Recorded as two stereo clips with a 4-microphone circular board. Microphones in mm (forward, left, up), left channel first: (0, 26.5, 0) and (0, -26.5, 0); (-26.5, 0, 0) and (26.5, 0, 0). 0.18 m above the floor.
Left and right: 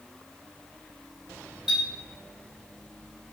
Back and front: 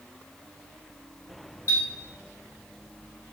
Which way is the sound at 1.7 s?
175° right.